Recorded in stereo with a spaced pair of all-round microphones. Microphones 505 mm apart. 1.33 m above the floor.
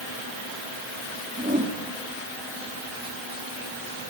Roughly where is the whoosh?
Centre.